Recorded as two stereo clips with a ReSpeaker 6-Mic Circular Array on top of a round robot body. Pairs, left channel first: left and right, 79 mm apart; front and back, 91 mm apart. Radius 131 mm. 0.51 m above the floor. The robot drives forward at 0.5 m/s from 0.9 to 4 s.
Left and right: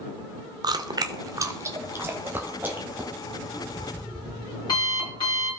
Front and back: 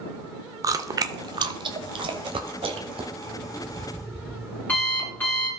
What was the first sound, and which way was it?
Chewing, 125° right.